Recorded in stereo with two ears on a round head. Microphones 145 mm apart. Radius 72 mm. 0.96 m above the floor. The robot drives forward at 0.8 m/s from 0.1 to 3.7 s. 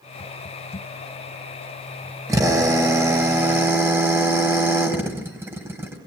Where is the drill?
20° right (ahead or behind), 3.5 m; by 6.0 s 15° right (ahead or behind), 4.5 m.